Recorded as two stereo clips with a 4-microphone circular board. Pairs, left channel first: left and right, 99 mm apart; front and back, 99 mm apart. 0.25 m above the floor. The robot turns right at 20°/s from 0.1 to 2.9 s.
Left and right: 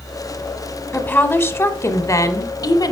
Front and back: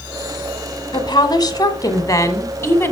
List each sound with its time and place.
0.9 s a woman speaking: 25° left, 1.4 m; by 2.9 s 60° left, 1.4 m